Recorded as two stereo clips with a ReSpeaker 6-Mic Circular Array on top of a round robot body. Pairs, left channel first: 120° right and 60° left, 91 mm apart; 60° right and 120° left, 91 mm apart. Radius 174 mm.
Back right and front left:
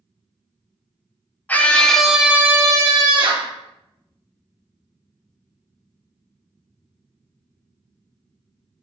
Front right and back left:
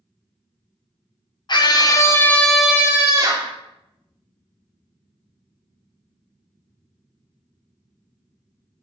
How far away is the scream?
About 1.5 m.